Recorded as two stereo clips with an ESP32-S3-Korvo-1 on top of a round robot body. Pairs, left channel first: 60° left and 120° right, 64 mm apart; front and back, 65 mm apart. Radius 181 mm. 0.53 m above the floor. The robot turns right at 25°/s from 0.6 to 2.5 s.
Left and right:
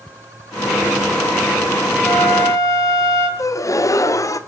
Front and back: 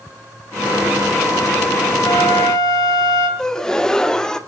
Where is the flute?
10° left, 4 m; by 3.3 s 25° left, 4 m.